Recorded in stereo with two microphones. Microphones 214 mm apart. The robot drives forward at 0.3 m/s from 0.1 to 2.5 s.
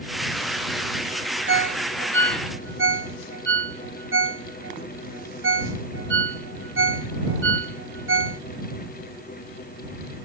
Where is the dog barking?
No dog barking in this recording.